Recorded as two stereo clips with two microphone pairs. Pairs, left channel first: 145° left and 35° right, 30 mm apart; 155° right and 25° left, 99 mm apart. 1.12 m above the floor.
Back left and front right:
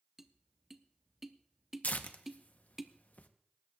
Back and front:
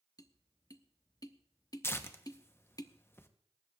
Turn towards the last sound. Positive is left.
turn(degrees=145)